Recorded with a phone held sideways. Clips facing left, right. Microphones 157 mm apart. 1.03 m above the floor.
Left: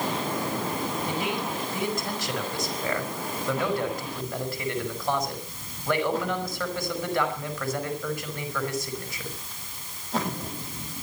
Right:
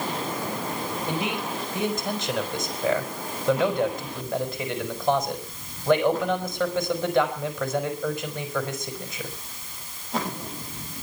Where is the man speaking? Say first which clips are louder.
Right 1 dB; 20° right (ahead or behind), 5 m.